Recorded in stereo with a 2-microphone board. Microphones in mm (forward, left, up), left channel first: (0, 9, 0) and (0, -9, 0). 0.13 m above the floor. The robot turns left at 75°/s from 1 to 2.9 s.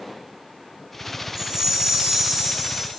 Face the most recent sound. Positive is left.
turn(degrees=-175)